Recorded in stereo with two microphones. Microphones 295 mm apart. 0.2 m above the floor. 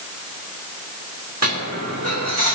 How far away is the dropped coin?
About 3.5 m.